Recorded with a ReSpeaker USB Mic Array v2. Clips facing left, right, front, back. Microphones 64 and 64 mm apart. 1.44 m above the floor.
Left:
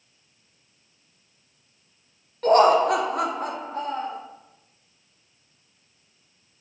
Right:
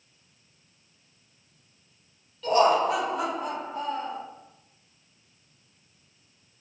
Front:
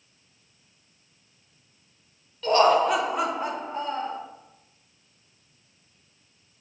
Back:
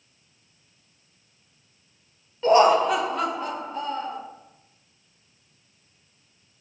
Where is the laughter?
120° left, 0.6 m; by 4.2 s 50° left, 1.2 m.